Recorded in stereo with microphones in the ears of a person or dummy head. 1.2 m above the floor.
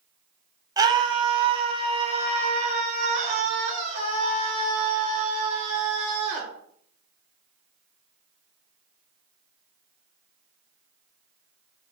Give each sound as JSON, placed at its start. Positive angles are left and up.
{"t": 0.8, "sound": "a scream", "side_deg": -20, "distance_m": 2.5}